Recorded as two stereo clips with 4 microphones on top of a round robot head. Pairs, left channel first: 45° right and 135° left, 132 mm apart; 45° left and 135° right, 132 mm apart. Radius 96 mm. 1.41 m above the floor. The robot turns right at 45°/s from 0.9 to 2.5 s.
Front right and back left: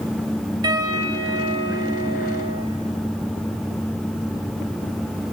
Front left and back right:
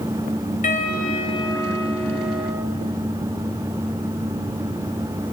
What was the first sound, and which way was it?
A piano, 75° left.